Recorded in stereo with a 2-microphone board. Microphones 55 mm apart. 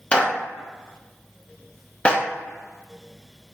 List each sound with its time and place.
0.1 s a clap: 25° left (ahead or behind), 0.9 m